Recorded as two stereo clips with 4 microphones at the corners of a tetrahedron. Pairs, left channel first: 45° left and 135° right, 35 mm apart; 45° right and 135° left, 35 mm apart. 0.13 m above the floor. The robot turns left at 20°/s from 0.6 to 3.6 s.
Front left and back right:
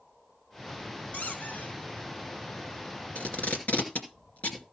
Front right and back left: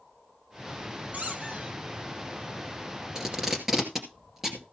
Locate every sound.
1.1 s a squeak: 95° left, 2.0 m; by 1.8 s 80° left, 2.0 m
3.1 s tape being pulled: 65° left, 2.5 m; by 4.7 s 55° left, 2.5 m